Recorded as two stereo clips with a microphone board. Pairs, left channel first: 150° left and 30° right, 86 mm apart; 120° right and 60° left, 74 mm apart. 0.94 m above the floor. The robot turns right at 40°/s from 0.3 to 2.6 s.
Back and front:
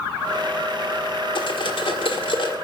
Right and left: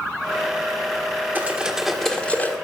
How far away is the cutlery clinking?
About 1.6 m.